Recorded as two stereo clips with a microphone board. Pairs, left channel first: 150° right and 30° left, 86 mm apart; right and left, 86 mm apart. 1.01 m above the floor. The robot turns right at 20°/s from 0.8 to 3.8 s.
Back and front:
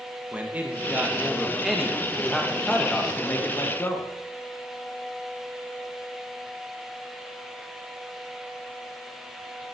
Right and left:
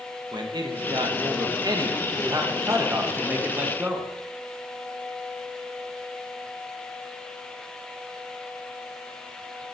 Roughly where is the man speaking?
Left.